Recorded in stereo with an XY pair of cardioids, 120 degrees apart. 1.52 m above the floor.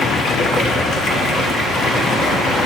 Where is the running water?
55° left, 0.8 m.